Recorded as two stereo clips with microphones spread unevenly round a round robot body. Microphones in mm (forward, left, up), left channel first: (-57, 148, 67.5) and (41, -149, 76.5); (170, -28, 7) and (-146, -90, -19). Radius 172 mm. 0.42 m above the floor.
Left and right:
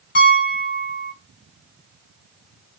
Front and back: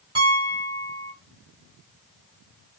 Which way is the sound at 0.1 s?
130° left.